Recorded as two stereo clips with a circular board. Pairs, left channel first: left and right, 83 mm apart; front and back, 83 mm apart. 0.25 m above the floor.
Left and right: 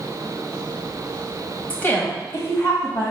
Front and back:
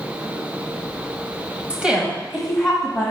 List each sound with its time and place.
1.7 s a woman speaking: 130° left, 1.5 m; by 3.1 s 80° left, 2.5 m